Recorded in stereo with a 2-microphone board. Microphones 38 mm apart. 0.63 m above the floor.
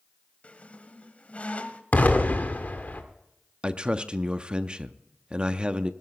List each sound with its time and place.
0.4 s a squeak: 40° left (ahead or behind), 0.9 m
1.9 s an explosion: 50° left (ahead or behind), 1.6 m
3.6 s a man speaking: 25° right (ahead or behind), 0.6 m